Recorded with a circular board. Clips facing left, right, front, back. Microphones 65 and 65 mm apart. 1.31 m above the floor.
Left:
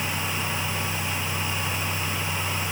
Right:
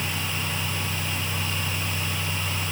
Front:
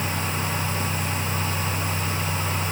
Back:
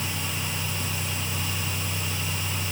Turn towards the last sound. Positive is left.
No sound to turn to.